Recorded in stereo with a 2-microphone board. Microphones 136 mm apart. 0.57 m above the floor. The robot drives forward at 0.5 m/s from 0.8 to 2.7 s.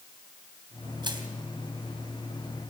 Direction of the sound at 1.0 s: 35° right (ahead or behind).